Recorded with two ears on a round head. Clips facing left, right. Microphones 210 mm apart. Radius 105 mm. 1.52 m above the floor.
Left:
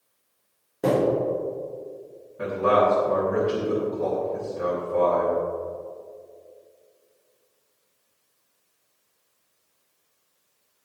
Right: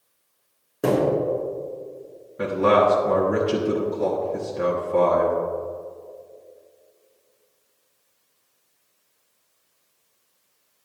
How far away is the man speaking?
About 1.4 m.